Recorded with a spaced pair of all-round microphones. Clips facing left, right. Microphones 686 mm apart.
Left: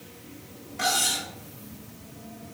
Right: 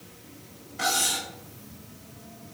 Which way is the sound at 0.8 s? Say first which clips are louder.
Even; 10° left (ahead or behind).